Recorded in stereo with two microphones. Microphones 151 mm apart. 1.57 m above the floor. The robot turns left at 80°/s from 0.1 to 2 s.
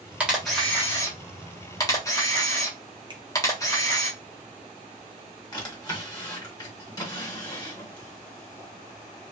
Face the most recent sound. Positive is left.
turn(degrees=25)  # may be behind; listen again after turning